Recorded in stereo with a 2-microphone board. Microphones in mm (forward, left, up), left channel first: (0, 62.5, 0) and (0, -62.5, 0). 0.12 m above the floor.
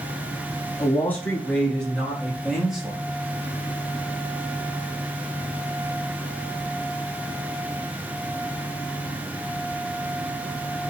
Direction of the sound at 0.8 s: 20° left (ahead or behind).